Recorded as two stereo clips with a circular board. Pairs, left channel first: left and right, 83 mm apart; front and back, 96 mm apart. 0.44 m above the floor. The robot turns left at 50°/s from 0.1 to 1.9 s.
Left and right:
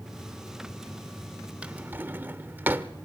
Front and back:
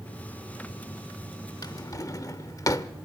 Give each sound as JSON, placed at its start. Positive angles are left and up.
{"t": 1.6, "sound": "a drawer", "azimuth_deg": -20, "distance_m": 0.8}